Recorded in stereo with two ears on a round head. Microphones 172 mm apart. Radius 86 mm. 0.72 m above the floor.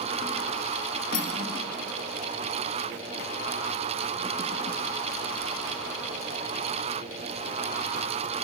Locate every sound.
1.1 s cutlery clinking: 55° left (ahead or behind), 0.8 m